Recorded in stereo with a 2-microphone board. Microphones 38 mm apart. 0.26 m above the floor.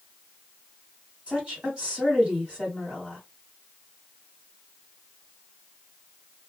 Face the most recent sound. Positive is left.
turn(degrees=-30)  # may be behind; listen again after turning